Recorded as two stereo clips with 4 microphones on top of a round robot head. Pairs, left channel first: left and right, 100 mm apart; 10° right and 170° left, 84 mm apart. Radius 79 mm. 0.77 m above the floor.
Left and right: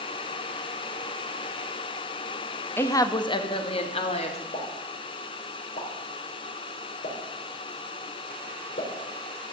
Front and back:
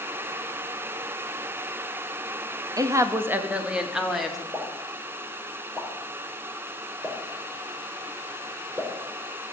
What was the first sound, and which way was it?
A woman speaking, 145° left.